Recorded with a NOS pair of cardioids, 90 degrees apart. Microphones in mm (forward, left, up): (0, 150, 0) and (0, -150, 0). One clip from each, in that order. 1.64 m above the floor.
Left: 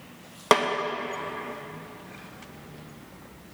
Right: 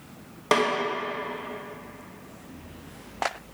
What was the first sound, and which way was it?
A snare drum, 45° left.